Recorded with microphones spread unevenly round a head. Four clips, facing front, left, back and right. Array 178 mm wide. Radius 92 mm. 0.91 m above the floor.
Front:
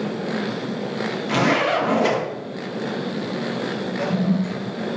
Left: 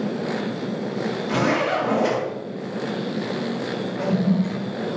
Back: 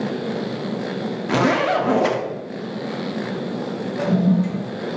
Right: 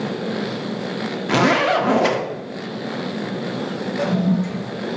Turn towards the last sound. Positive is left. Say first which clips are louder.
# right 2 dB, back 4 dB
turn(degrees=-145)